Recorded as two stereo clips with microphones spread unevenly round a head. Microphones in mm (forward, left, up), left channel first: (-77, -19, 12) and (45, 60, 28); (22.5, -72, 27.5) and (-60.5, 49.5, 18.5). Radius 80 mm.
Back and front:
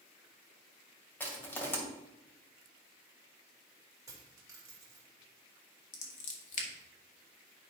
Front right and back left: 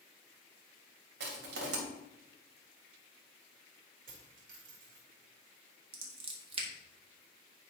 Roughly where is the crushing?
Behind left.